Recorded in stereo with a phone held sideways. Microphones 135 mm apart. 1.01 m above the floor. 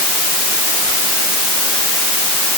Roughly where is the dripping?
I don't hear dripping.